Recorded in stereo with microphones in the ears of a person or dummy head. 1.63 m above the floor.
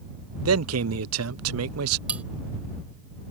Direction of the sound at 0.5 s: 75° right (ahead or behind).